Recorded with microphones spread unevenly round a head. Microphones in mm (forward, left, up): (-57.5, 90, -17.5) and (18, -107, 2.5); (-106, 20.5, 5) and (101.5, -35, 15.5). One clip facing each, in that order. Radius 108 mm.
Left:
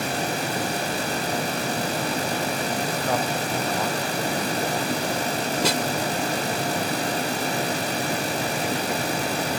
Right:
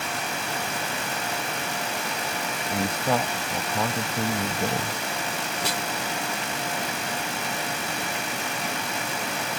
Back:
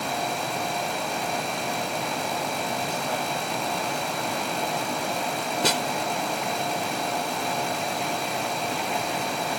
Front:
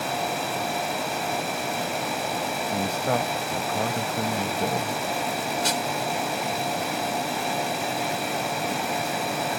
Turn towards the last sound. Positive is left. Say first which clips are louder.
# left 7 dB, back 5 dB
turn(degrees=130)